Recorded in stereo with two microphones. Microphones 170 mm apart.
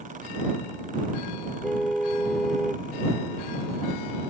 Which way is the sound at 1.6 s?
Centre (ahead or behind).